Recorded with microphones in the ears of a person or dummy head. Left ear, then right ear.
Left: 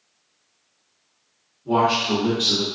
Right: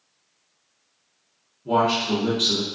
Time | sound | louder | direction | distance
1.6 | a man speaking | left 1 dB | 55° right (ahead or behind) | 0.7 m